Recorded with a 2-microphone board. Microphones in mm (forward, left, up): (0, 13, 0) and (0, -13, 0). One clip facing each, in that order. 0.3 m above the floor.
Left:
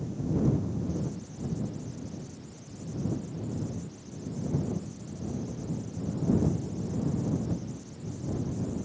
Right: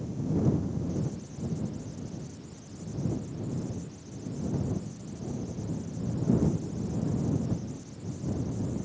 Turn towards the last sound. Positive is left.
No sound to turn to.